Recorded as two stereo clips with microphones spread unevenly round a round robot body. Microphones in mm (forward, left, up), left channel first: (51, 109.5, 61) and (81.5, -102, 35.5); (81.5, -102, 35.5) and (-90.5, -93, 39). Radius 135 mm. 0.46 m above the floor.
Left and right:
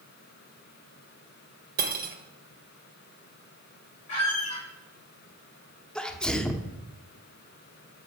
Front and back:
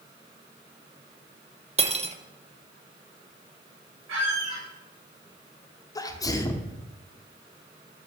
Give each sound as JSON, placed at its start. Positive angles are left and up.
{"t": 1.8, "sound": "cutlery clinking", "azimuth_deg": -130, "distance_m": 1.0}
{"t": 4.1, "sound": "a squeak", "azimuth_deg": 140, "distance_m": 4.5}
{"t": 6.0, "sound": "a sneeze", "azimuth_deg": 0, "distance_m": 0.9}